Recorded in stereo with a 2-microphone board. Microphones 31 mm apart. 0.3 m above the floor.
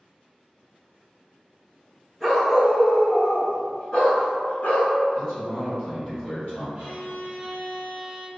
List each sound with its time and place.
2.2 s a dog barking: 5° left (ahead or behind), 1.4 m; by 4.9 s 75° left (ahead or behind), 0.9 m
5.2 s a man speaking: 45° left (ahead or behind), 1.8 m
6.8 s a violin: 35° right (ahead or behind), 1.5 m